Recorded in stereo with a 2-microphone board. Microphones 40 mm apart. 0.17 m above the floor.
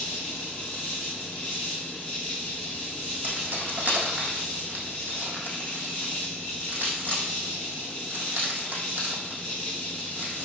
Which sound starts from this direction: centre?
An insect, at 0.0 s.